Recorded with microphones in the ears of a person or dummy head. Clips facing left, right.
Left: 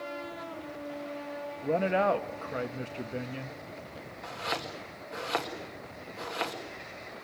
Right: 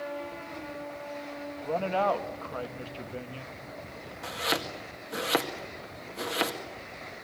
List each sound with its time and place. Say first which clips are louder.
1.6 s a man speaking: left 1 dB; 25° left (ahead or behind), 1.4 m
4.2 s chopping: right 4 dB; 35° right (ahead or behind), 2 m